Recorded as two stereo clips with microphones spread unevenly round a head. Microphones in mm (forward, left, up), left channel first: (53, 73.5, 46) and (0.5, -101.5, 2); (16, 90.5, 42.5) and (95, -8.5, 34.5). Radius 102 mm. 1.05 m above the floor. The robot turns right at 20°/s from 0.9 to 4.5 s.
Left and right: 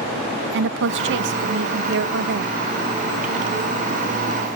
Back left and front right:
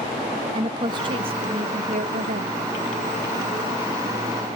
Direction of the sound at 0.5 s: 110° right.